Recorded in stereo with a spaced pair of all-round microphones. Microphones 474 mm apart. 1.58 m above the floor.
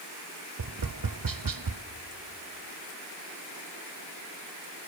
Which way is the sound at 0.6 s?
45° right (ahead or behind).